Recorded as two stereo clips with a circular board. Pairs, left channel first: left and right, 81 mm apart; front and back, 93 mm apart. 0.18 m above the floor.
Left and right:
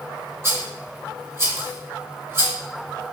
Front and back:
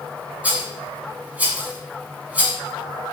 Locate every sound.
0.4 s a rattle: 115° right, 1.0 m